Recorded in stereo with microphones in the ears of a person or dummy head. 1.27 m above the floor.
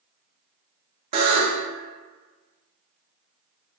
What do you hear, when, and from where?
1.1 s a buzzer: 30° right (ahead or behind), 0.6 m